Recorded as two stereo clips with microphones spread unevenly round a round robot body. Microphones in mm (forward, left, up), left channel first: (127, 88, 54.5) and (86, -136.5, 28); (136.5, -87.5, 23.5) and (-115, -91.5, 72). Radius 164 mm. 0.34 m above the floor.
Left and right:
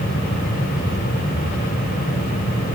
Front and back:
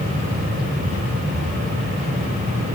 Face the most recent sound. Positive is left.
No sound to turn to.